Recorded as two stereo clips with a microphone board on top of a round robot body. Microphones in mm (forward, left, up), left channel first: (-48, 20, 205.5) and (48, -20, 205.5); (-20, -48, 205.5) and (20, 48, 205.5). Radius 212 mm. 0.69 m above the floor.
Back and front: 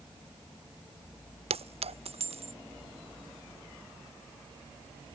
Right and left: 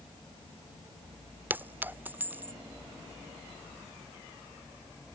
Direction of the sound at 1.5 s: 5° right.